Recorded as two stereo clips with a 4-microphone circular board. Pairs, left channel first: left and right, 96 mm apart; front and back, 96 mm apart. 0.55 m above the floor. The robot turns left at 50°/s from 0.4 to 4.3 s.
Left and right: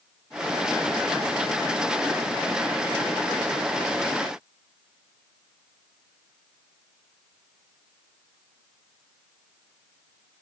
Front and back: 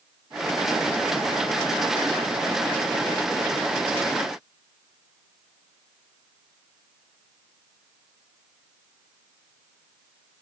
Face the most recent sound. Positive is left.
No sound to turn to.